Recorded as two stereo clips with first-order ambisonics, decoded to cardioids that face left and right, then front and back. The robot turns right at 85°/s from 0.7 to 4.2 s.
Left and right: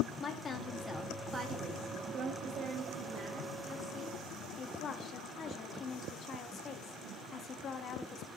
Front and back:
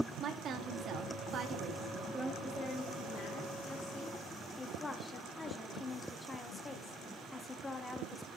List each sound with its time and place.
0.2 s a woman speaking: 150° left, 0.8 m; by 2.3 s 75° right, 0.8 m
2.4 s a woman speaking: 90° right, 0.7 m; by 4.2 s 60° left, 0.7 m
4.6 s a woman speaking: 70° left, 0.6 m